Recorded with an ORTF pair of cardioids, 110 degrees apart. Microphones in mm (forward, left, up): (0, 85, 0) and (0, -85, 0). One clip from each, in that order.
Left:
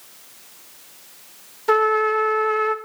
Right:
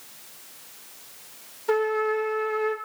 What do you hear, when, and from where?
1.7 s a trumpet: 50° left, 1.2 m